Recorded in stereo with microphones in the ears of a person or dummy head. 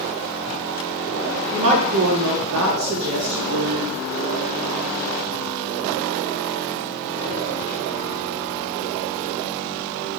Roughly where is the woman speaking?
Right.